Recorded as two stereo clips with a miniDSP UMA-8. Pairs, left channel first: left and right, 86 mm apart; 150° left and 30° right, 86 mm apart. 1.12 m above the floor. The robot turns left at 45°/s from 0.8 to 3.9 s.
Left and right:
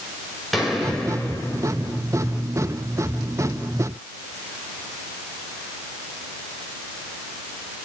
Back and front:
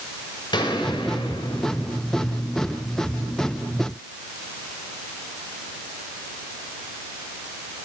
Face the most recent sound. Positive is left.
turn(degrees=40)